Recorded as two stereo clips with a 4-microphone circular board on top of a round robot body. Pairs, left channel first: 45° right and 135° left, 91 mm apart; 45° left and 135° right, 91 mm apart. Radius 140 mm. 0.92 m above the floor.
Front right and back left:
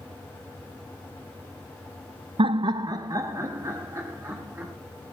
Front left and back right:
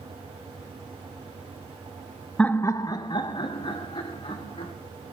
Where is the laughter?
125° left, 0.8 m; by 4.7 s 70° left, 4 m.